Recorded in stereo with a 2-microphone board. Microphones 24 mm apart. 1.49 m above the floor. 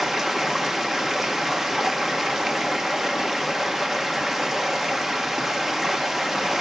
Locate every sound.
0.0 s running water: 10° right (ahead or behind), 0.8 m